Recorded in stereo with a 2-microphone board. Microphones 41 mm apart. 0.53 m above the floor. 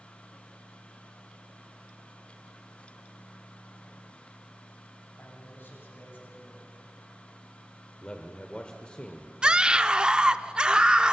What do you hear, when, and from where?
5.2 s a man speaking: 55° left (ahead or behind), 4.5 m
8.0 s a man speaking: 25° left (ahead or behind), 1.3 m
9.4 s a scream: 20° right (ahead or behind), 0.8 m